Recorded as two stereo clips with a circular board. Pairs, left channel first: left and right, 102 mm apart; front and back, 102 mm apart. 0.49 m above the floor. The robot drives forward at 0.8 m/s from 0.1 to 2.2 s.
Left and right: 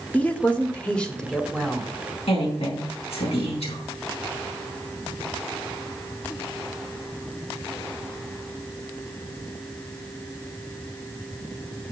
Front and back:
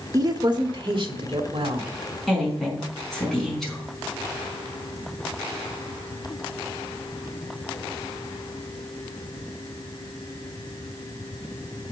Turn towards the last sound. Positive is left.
turn(degrees=85)